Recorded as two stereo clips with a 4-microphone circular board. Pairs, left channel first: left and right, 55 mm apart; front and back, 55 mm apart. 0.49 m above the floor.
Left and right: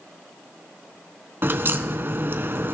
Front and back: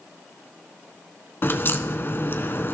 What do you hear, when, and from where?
1.4 s a crack: 45° right, 1.3 m